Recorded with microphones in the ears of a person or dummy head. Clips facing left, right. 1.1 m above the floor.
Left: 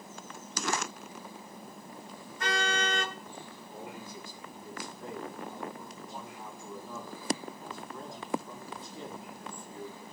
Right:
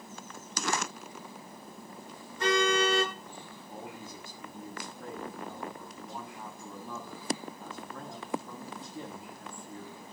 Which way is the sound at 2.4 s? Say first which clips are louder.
Right 6 dB; 85° right.